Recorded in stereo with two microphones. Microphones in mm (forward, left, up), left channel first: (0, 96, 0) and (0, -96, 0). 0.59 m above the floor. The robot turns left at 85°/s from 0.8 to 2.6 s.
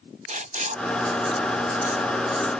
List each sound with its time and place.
0.3 s writing: 40° right (ahead or behind); by 2.5 s 10° left (ahead or behind)